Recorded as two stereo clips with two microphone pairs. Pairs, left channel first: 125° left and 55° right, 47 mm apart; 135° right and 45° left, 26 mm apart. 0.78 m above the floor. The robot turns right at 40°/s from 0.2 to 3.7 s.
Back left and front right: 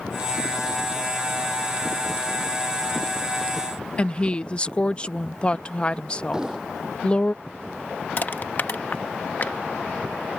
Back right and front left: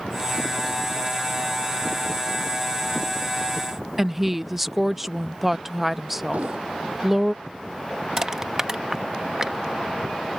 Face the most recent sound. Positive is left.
turn(degrees=105)